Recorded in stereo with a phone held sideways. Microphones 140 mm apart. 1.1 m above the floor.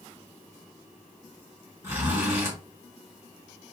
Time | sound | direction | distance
1.8 | a zipper | 20° right (ahead or behind) | 2.5 m